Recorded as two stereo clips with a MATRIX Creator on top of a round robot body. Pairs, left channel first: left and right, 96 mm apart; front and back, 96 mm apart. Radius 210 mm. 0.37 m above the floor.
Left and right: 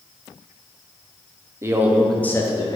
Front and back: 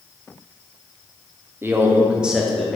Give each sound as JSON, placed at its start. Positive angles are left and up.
{"t": 1.6, "sound": "a man speaking", "azimuth_deg": -130, "distance_m": 0.9}